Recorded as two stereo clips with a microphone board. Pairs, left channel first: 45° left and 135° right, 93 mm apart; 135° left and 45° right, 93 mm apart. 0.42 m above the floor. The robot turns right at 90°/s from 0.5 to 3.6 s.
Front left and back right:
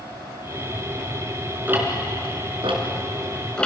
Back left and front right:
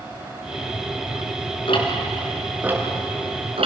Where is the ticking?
155° left, 4 m; by 3.7 s 35° right, 4 m.